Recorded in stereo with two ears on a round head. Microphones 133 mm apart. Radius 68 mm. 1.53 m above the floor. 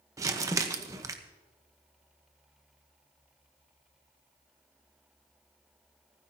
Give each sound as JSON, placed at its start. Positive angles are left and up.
{"t": 0.2, "sound": "crumpling", "side_deg": -20, "distance_m": 1.0}